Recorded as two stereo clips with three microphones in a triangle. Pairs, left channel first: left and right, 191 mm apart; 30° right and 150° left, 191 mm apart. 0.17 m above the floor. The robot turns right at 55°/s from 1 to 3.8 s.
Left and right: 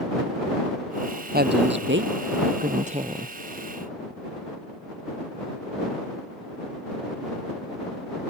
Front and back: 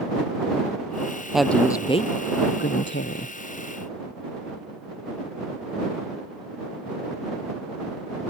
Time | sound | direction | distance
1.3 | a woman speaking | 125° right | ?